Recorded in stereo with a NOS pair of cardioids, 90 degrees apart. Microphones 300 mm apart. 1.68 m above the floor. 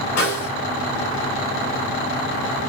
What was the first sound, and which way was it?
A snare drum, 65° left.